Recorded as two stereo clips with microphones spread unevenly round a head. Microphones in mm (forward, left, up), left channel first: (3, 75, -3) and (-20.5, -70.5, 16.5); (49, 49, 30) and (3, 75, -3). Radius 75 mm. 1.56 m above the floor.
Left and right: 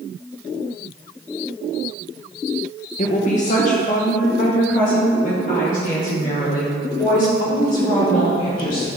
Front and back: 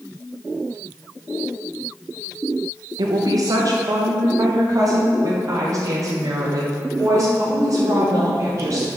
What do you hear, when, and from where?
3.0 s a woman speaking: 130° left, 1.0 m; by 8.9 s 115° left, 4.5 m